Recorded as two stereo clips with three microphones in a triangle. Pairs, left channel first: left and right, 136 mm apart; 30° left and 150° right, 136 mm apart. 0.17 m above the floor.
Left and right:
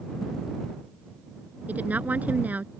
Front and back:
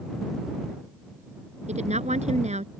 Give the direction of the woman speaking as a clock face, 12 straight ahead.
6 o'clock.